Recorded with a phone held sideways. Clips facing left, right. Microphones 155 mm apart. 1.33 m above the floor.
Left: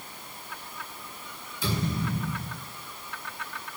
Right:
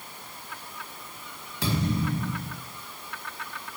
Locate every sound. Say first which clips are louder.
1.6 s a thud: right 3 dB; 70° right (ahead or behind), 5 m